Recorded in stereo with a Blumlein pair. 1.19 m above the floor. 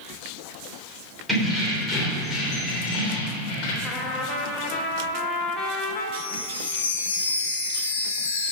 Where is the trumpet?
20° left, 1.5 m.